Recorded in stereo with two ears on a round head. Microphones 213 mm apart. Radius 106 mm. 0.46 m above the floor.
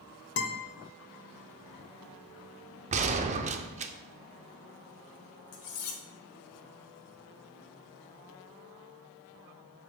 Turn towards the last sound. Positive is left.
turn(degrees=60)  # may be behind; listen again after turning